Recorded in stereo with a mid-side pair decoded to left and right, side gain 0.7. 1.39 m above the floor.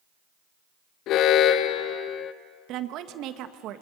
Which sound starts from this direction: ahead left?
An alarm, at 1.1 s.